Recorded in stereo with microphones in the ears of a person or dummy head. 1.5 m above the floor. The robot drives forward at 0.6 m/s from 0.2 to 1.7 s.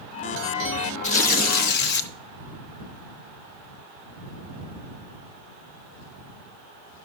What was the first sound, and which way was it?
Tearing paper, 40° left (ahead or behind).